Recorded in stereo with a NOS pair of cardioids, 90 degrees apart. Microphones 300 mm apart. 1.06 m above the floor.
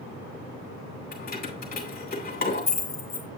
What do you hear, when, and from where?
1.1 s keys jangling: 30° left, 3 m